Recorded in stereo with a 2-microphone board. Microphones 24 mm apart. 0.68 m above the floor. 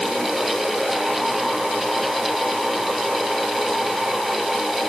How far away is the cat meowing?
I don't hear a cat meowing.